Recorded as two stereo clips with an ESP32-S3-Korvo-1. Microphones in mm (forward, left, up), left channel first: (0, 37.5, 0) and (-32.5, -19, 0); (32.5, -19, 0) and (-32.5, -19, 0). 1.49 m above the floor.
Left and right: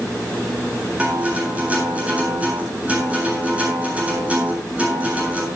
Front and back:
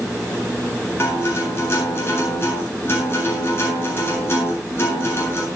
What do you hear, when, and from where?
1.0 s a guitar: 50° right, 9 m